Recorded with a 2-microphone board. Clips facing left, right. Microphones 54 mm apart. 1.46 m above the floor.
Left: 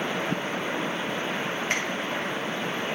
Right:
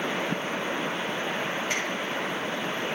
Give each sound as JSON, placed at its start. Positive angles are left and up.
{"t": 1.7, "sound": "a finger snap", "side_deg": 50, "distance_m": 1.6}